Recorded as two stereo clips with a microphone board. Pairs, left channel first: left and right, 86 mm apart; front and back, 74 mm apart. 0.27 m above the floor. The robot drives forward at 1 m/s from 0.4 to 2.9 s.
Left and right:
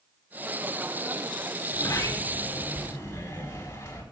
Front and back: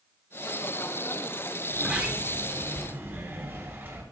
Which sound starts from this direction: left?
A sliding door, at 1.7 s.